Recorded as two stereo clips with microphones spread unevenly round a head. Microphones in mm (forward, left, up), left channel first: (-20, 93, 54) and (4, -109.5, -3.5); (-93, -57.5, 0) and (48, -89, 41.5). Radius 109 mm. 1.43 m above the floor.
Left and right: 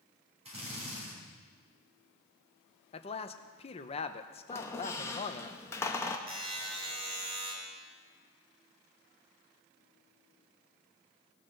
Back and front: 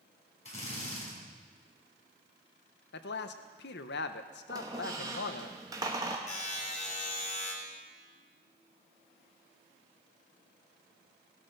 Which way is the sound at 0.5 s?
150° right.